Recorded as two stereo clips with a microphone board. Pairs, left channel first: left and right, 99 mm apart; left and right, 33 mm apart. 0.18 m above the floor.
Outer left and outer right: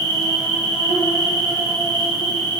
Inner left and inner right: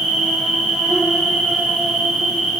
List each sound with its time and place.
0.0 s an insect: 55° right (ahead or behind), 1.2 m